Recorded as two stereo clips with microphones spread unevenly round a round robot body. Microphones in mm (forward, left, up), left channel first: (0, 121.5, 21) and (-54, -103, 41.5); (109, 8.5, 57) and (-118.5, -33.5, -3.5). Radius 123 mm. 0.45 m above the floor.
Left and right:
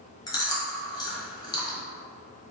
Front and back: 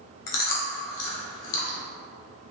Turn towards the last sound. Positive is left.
turn(degrees=5)